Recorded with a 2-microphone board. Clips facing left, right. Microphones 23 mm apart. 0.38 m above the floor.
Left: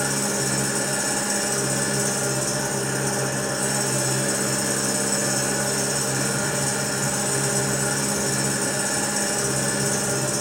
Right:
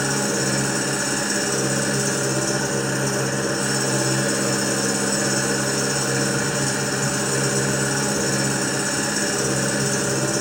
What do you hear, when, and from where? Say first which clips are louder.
0.0 s an engine running: right 3 dB; 15° right (ahead or behind), 2 m